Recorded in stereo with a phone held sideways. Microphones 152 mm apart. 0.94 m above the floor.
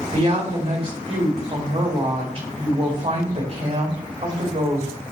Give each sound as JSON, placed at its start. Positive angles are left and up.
{"t": 0.1, "sound": "a woman speaking", "side_deg": -45, "distance_m": 3.5}